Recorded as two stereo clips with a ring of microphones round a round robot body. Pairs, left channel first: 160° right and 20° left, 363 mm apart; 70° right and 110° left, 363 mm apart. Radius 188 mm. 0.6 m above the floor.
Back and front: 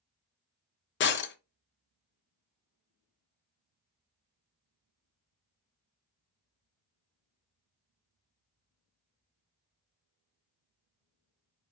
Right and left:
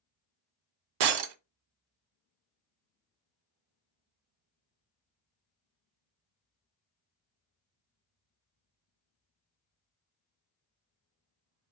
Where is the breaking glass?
140° left, 0.6 m.